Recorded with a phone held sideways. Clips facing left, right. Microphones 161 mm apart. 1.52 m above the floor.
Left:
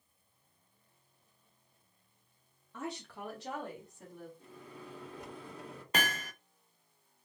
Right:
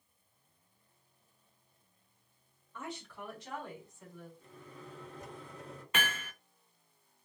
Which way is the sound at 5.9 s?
40° left (ahead or behind).